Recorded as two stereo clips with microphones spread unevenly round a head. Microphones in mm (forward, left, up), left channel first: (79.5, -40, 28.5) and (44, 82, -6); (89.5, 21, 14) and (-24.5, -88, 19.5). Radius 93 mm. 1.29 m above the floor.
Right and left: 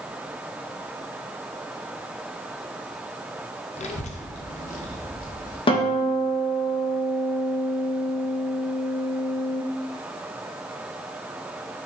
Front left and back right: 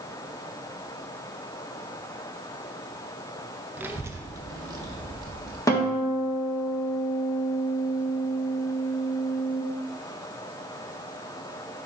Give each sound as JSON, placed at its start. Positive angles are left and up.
{"t": 3.8, "sound": "a child speaking", "azimuth_deg": -60, "distance_m": 0.7}
{"t": 5.7, "sound": "a guitar", "azimuth_deg": -25, "distance_m": 1.8}